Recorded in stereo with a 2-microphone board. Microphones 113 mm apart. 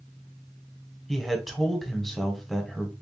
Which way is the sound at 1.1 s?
Centre (ahead or behind).